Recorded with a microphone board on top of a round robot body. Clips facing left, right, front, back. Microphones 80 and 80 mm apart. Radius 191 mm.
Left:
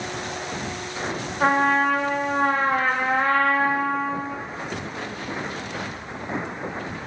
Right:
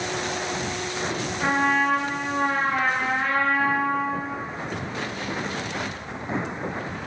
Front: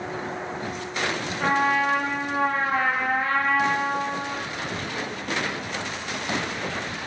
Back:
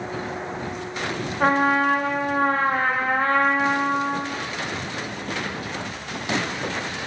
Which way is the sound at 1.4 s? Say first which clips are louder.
Left 3 dB, back 3 dB; 135° left.